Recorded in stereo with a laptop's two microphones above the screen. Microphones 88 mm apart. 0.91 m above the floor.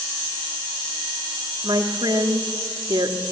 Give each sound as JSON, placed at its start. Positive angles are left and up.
{"t": 1.6, "sound": "a woman speaking", "side_deg": -50, "distance_m": 1.9}